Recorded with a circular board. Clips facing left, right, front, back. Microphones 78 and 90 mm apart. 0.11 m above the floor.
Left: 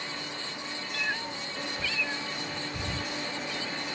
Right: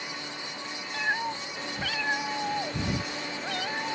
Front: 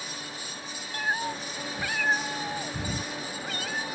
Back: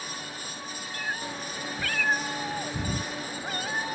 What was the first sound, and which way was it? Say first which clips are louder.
A cat meowing: right 5 dB, front 5 dB; 30° right.